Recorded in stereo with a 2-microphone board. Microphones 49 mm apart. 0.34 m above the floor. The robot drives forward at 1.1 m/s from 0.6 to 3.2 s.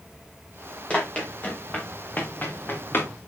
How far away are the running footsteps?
About 7 m.